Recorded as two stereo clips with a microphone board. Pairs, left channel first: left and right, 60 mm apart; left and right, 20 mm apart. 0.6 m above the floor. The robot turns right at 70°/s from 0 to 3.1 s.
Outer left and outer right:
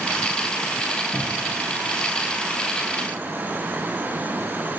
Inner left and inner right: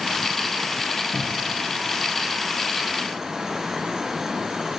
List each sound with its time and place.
1.1 s a cupboard door: 75° left (ahead or behind), 1.0 m; by 1.5 s 50° left (ahead or behind), 1.0 m